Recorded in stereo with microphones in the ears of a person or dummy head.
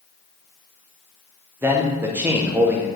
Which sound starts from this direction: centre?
A man speaking, at 1.6 s.